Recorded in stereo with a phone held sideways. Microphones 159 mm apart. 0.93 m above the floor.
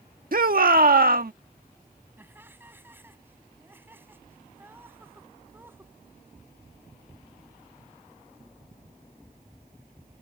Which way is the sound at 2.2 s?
15° right (ahead or behind).